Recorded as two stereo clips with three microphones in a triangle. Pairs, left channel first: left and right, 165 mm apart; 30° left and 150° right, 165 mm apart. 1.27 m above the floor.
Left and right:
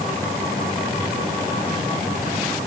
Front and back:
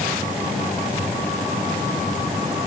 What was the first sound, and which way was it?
Only background noise.